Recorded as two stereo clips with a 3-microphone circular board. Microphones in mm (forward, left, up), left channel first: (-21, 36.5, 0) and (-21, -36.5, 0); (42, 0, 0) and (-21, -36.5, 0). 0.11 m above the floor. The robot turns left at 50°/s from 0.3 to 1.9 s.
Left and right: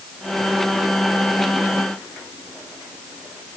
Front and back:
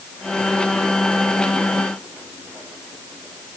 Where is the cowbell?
I don't hear a cowbell.